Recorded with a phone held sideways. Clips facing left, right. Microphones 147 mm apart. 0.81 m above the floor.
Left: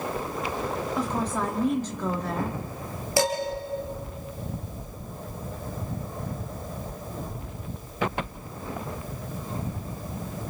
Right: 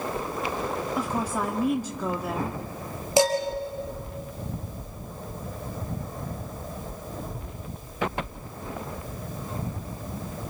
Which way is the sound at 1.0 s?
10° right (ahead or behind).